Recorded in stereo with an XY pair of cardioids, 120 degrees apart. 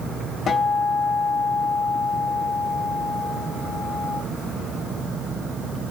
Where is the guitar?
50° left, 1.3 m.